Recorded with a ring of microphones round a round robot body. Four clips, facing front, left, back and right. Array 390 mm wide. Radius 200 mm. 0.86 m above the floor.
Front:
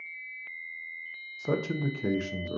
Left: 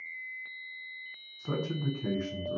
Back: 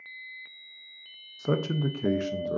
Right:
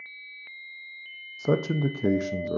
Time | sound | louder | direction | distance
1.4 | a man speaking | right 9 dB, back 2 dB | 105° right | 0.5 m